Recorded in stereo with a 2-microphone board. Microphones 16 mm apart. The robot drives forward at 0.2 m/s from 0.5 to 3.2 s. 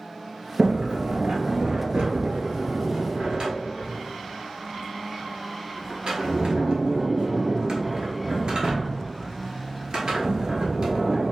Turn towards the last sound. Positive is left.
turn(degrees=-60)  # may be behind; listen again after turning